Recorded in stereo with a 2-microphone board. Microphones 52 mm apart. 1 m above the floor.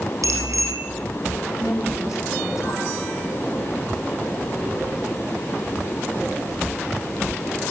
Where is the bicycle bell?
85° right, 5.5 m.